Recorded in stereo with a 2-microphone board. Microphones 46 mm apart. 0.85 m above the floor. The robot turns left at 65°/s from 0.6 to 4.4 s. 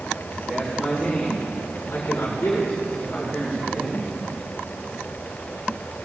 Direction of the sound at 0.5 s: 170° right.